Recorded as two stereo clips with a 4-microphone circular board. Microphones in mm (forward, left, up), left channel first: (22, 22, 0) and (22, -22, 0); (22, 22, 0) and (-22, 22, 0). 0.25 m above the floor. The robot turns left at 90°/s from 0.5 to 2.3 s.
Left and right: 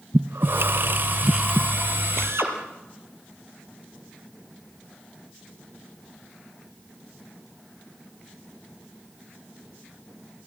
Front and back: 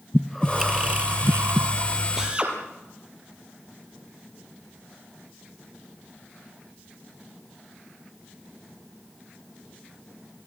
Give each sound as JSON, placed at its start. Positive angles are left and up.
{"t": 0.1, "sound": "breathing", "azimuth_deg": -85, "distance_m": 0.6}
{"t": 2.2, "sound": "a drill", "azimuth_deg": -100, "distance_m": 4.5}